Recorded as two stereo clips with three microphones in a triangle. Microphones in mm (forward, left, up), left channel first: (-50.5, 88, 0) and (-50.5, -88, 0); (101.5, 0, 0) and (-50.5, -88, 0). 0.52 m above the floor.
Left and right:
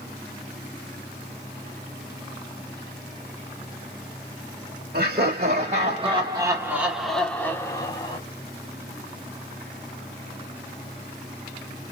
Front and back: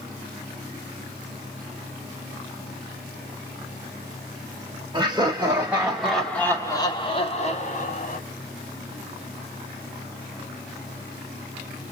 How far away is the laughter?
About 1.8 m.